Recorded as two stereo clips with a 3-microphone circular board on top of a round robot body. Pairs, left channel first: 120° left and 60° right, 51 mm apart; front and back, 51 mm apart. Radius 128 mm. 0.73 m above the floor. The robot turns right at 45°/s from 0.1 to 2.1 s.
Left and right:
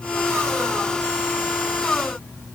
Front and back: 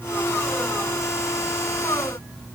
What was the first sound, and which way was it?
Only background noise.